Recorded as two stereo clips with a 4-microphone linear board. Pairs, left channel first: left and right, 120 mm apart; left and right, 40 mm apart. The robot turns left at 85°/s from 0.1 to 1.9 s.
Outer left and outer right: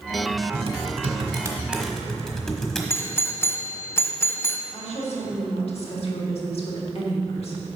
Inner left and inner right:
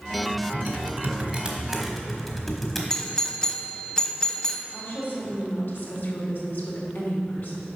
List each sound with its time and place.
0.5 s typing on a keyboard: 50° right (ahead or behind), 1.3 m; by 2.8 s 5° left (ahead or behind), 1.3 m
2.9 s a doorbell: 20° left (ahead or behind), 0.6 m
4.7 s a woman speaking: 55° left (ahead or behind), 1.9 m